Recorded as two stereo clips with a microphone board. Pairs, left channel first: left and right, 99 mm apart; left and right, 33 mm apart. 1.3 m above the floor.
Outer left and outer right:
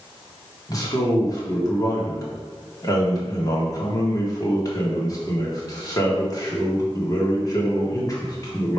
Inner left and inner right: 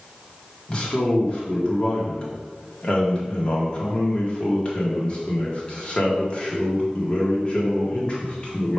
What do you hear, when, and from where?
0.7 s a man speaking: 35° left (ahead or behind), 1.8 m